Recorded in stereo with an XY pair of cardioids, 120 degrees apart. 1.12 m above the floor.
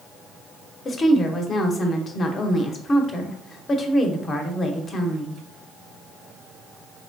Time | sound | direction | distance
0.8 | a woman speaking | 35° left | 0.9 m